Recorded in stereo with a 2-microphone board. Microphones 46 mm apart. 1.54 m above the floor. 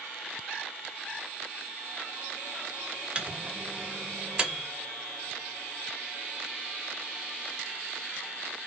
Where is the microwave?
20° right (ahead or behind), 0.5 m.